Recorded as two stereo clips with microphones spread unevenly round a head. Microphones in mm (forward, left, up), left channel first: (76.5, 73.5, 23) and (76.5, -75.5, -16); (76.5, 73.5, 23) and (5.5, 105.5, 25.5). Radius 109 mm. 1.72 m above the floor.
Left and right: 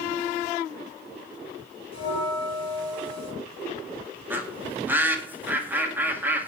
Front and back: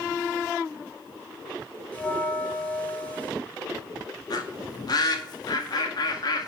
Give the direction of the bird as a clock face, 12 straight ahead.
12 o'clock.